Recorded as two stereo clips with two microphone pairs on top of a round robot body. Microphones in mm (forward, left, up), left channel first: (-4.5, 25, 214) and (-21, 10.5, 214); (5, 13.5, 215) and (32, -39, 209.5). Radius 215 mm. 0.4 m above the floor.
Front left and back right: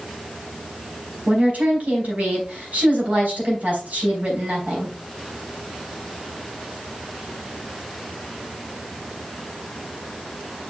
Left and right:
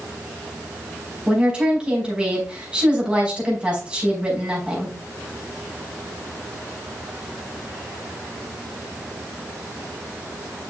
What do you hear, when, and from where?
1.3 s a woman speaking: 135° right, 4.5 m